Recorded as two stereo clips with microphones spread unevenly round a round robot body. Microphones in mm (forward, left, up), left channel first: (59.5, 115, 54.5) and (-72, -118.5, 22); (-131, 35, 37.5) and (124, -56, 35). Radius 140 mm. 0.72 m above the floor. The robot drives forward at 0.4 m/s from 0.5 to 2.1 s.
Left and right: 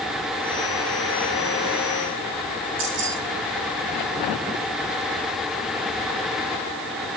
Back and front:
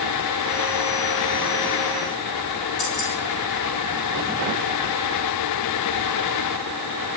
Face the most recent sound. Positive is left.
turn(degrees=-165)